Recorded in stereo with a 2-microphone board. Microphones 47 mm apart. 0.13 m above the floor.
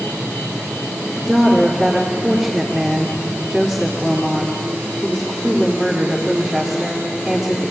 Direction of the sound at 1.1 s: 5° right (ahead or behind).